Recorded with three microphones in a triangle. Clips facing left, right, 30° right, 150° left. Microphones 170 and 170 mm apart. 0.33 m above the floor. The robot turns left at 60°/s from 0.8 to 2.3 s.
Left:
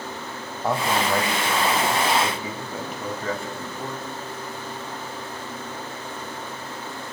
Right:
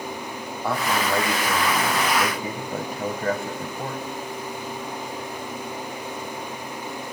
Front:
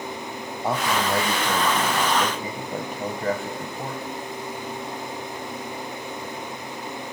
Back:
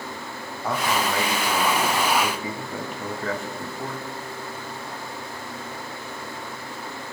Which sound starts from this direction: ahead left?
A man speaking, at 0.6 s.